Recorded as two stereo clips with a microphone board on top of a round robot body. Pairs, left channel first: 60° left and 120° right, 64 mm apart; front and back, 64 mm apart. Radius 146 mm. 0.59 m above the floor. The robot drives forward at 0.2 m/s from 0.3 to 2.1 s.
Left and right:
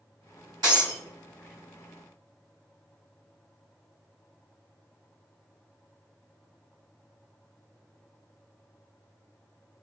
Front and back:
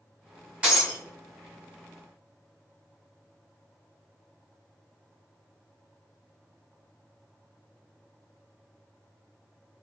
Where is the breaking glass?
110° right, 1.7 m.